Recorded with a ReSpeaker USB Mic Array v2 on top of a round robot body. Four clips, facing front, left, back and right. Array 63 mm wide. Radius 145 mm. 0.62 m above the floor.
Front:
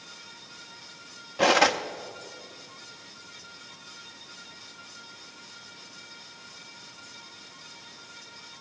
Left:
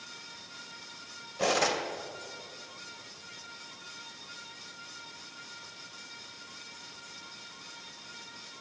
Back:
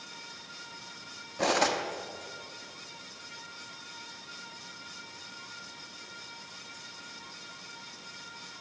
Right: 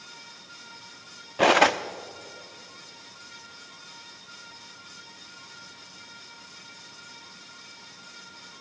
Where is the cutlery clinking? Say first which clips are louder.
Right 9 dB, front 6 dB; 70° right, 0.6 m.